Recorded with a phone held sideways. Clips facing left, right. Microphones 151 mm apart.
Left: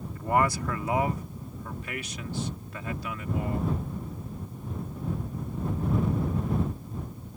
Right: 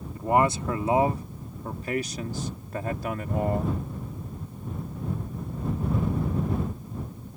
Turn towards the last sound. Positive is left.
turn(degrees=-55)  # may be behind; listen again after turning